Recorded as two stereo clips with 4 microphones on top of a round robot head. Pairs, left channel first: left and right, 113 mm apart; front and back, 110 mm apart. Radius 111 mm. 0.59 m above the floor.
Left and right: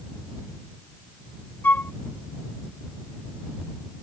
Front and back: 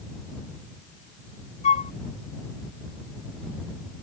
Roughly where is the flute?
Ahead.